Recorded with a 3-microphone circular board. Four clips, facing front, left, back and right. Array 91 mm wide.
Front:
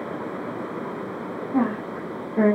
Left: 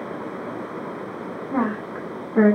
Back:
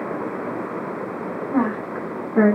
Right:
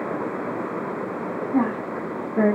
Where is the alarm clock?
No alarm clock in this recording.